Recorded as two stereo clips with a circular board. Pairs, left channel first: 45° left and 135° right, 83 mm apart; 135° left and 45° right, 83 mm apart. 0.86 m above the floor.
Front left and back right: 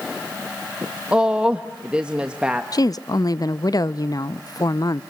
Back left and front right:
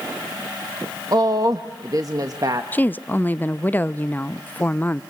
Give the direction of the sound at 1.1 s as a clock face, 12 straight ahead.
2 o'clock.